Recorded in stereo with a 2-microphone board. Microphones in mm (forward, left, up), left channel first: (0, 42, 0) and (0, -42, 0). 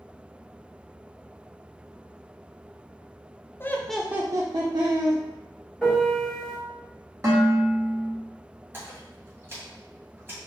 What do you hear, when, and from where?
3.6 s laughter: 25° left (ahead or behind), 0.6 m; by 5.2 s 75° right (ahead or behind), 1.1 m
5.8 s a piano: 5° left (ahead or behind), 2 m
7.2 s dishes clattering: 40° right (ahead or behind), 1.7 m
8.7 s a splash: 30° right (ahead or behind), 2 m